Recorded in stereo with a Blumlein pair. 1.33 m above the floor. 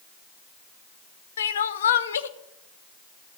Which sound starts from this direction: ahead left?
Crying, at 1.4 s.